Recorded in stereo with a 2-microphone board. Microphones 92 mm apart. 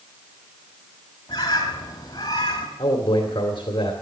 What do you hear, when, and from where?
1.3 s a bird: 45° left (ahead or behind), 2.5 m
2.8 s a man speaking: 55° left (ahead or behind), 2.5 m